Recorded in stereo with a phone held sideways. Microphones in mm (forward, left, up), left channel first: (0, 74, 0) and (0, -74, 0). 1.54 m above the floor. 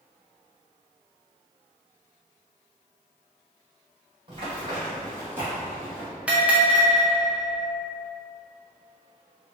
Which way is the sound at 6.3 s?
10° right (ahead or behind).